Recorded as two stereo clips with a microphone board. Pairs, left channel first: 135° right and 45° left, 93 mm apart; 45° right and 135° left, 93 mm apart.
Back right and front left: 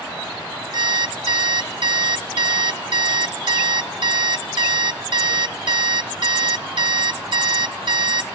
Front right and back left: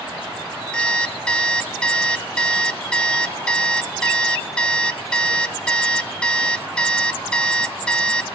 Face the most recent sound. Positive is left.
turn(degrees=35)